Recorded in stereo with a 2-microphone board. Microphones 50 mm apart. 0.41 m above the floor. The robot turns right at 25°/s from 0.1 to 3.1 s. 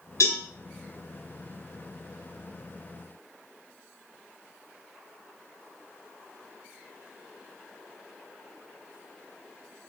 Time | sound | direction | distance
0.2 | a cowbell | 75° left (ahead or behind) | 2 m